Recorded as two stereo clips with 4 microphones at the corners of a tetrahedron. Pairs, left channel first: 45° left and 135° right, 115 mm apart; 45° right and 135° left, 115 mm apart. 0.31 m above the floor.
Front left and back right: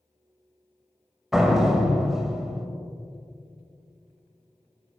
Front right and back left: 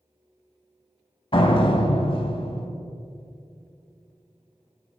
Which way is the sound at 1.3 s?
50° right.